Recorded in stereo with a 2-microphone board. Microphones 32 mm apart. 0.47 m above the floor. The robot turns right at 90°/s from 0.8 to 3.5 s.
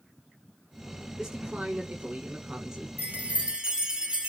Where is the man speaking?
170° right, 1.2 m; by 2.9 s 20° right, 1.2 m.